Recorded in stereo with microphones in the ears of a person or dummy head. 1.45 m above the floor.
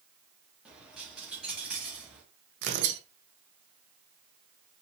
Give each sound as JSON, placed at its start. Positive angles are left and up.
{"t": 0.7, "sound": "a dropped coin", "side_deg": -10, "distance_m": 1.1}
{"t": 2.6, "sound": "tearing paper", "side_deg": -60, "distance_m": 0.8}